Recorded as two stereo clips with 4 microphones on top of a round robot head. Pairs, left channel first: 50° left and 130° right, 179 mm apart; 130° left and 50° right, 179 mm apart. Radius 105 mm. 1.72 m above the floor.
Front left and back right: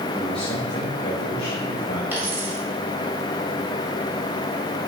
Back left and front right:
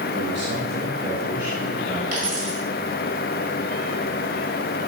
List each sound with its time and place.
0.1 s a man speaking: 45° right, 1.5 m; by 2.0 s 30° left, 2.5 m
2.1 s a dropped coin: 55° right, 1.7 m